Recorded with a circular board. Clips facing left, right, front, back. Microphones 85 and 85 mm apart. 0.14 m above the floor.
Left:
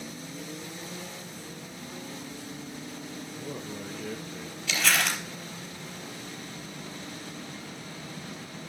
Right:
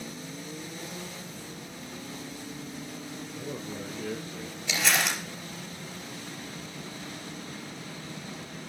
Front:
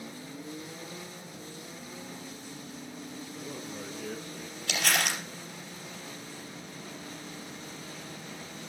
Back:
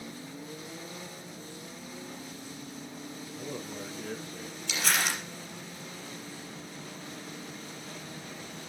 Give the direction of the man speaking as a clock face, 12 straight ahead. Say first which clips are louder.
Right 1 dB, back 3 dB; 5 o'clock.